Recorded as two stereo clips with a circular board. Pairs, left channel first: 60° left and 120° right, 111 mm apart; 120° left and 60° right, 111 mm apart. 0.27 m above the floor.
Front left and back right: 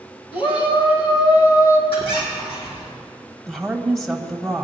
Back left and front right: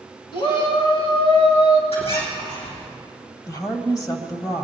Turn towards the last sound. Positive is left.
turn(degrees=145)